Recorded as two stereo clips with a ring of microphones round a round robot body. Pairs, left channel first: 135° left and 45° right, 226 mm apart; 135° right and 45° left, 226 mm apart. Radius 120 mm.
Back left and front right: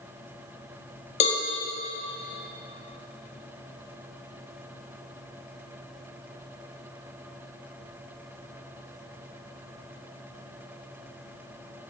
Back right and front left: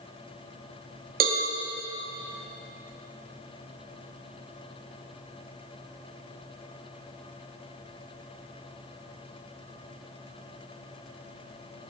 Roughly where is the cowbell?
Left.